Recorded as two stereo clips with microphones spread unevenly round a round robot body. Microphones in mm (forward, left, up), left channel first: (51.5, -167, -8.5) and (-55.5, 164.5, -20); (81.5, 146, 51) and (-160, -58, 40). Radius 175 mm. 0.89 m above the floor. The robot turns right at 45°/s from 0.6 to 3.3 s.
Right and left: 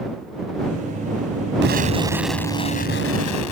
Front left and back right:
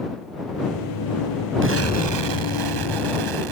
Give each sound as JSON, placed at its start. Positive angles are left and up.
{"t": 1.6, "sound": "an explosion", "azimuth_deg": 170}